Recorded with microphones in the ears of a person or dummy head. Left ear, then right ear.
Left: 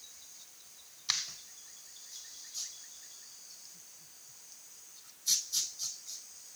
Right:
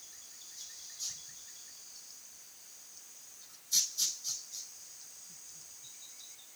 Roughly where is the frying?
No frying in this recording.